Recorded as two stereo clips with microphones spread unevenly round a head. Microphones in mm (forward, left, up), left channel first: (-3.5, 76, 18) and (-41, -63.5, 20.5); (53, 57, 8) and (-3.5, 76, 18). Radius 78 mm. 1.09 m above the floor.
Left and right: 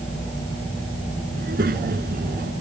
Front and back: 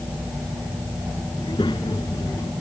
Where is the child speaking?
70° right; by 2.5 s 65° right.